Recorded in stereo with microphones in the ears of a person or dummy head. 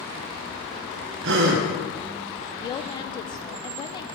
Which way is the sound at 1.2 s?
70° right (ahead or behind).